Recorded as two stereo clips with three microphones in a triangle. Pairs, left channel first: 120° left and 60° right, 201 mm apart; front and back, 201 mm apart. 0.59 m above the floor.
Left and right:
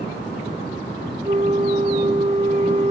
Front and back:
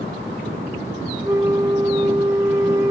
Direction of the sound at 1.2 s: 105° right.